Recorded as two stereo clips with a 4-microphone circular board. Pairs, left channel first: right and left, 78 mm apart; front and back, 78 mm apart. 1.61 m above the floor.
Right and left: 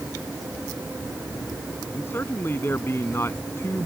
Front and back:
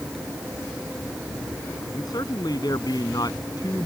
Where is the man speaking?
30° right; by 3.9 s 35° right.